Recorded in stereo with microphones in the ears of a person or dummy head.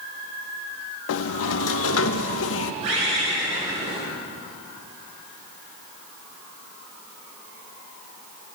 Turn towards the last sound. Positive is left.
turn(degrees=-40)  # may be behind; listen again after turning